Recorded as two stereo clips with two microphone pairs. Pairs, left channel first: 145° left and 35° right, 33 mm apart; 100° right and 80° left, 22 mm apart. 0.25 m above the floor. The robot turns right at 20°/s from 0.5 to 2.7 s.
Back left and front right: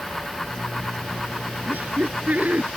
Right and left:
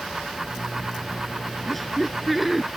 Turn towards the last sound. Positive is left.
turn(degrees=-5)